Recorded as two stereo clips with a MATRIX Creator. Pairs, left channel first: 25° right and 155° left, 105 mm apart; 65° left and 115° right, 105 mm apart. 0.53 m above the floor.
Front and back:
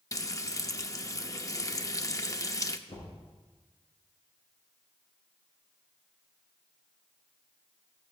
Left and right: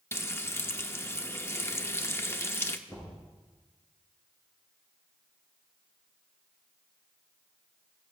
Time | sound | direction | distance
0.1 | frying | 15° left | 0.6 m
2.9 | knocking | 5° left | 5.5 m